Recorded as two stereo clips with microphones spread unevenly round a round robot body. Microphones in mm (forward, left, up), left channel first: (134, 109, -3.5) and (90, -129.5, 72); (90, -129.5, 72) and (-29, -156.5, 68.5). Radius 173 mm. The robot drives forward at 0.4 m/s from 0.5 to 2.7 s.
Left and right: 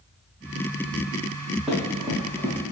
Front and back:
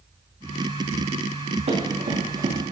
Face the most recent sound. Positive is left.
turn(degrees=180)